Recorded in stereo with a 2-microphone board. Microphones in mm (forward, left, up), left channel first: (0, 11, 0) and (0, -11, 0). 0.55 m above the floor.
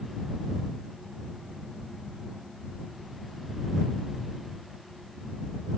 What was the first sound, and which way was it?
Only background noise.